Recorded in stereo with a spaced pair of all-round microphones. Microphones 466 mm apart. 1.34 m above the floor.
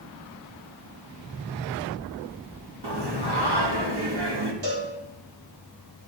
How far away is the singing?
About 0.8 m.